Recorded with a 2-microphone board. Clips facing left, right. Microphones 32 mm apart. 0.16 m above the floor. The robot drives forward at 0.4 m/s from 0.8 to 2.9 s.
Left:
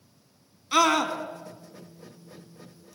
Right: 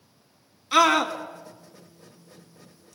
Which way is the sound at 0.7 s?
5° right (ahead or behind).